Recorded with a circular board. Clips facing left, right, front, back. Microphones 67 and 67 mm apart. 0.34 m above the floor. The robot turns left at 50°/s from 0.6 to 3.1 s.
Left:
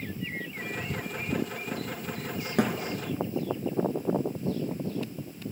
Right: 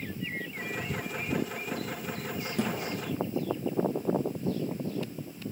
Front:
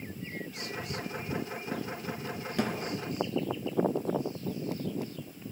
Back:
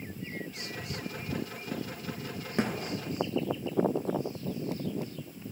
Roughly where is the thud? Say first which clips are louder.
Left 5 dB, back 1 dB; behind left.